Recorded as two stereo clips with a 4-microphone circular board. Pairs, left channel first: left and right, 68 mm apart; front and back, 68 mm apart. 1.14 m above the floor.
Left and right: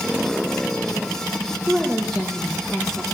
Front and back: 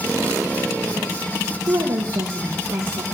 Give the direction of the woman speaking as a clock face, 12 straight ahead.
6 o'clock.